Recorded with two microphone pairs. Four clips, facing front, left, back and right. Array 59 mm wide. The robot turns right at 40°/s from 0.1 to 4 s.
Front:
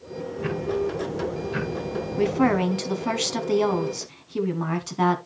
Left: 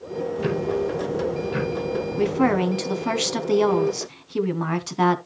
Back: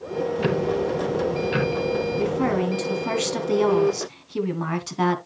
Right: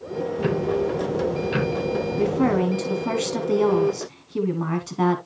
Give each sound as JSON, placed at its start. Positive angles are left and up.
{"t": 0.4, "sound": "ticking", "azimuth_deg": 175, "distance_m": 2.0}
{"t": 2.2, "sound": "a woman speaking", "azimuth_deg": 45, "distance_m": 1.2}